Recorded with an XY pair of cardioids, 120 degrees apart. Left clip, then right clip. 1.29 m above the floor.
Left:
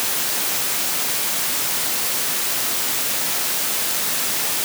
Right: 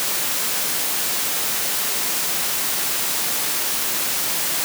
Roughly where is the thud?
No thud in this recording.